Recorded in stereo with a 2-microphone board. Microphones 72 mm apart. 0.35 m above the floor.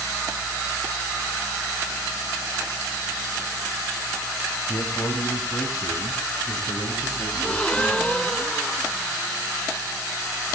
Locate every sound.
4.7 s a man speaking: 50° left (ahead or behind), 1.8 m; by 8.3 s 80° left, 5.5 m
7.3 s a gasp: 15° left (ahead or behind), 0.8 m